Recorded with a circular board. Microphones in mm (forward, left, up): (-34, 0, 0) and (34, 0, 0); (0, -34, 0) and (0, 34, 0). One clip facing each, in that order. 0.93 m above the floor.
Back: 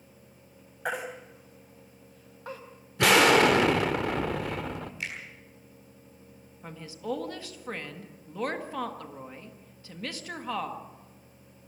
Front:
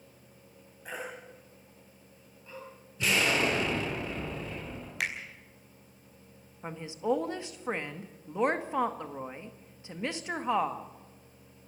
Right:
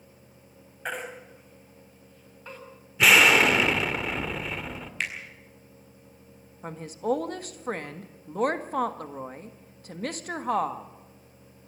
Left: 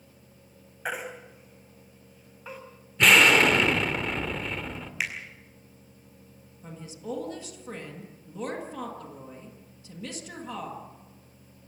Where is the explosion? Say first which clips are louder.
Back 8 dB, even; 175° right, 1.8 m.